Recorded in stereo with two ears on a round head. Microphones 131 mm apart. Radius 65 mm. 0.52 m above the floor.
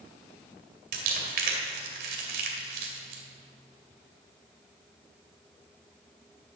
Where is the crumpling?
65° right (ahead or behind), 2 m.